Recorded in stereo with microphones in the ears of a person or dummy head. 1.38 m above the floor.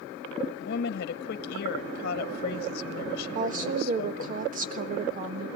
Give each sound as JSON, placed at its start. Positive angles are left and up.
{"t": 0.6, "sound": "a woman speaking", "side_deg": 70, "distance_m": 1.1}
{"t": 3.4, "sound": "a woman speaking", "side_deg": -45, "distance_m": 1.5}